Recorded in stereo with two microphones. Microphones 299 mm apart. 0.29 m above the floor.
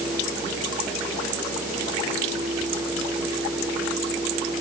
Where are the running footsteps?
No running footsteps in this recording.